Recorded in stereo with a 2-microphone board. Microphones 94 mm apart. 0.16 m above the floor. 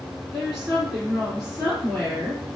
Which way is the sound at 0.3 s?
5° left (ahead or behind).